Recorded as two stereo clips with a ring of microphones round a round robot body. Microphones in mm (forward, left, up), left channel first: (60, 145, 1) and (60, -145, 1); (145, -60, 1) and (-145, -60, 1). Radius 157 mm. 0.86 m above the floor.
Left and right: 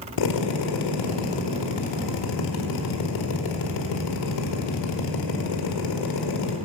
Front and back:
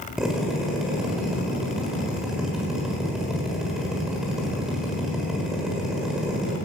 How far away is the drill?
About 1.4 m.